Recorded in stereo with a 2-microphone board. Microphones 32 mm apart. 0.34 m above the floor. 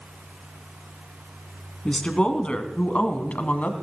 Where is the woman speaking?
25° left (ahead or behind), 2.5 m; by 3.8 s 55° left (ahead or behind), 2 m.